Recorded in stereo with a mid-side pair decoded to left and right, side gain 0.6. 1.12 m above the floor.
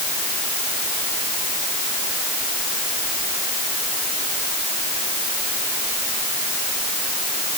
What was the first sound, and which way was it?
Only background noise.